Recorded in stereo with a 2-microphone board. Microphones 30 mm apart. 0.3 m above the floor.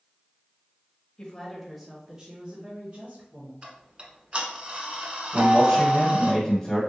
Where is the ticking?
35° right (ahead or behind), 0.8 m.